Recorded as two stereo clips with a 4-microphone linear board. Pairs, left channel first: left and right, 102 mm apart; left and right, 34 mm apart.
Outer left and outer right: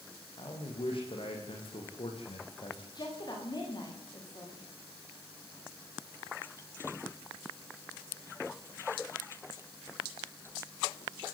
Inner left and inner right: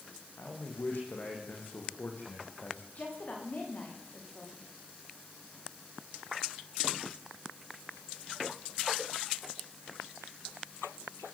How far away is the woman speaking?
About 9.5 m.